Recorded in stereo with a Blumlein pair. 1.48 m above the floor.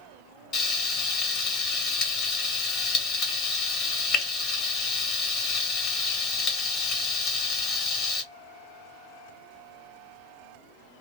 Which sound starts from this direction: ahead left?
Frying, at 0.5 s.